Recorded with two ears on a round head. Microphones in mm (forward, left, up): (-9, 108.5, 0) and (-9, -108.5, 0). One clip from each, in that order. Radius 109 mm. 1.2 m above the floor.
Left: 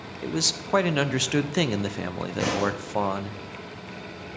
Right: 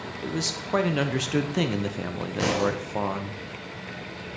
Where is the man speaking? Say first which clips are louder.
Left 4 dB; 20° left (ahead or behind), 0.5 m.